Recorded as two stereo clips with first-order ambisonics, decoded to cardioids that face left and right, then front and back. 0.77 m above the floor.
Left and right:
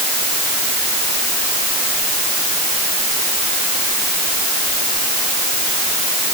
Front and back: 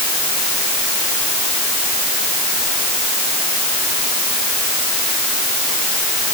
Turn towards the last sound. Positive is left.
No sound to turn to.